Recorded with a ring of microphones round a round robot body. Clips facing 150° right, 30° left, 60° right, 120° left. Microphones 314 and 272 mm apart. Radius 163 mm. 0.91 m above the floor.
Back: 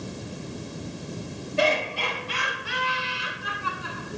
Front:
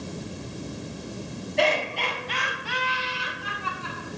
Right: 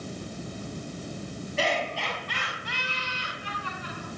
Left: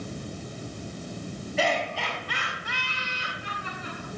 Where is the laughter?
125° left, 6.5 m; by 4.2 s 140° left, 9.5 m.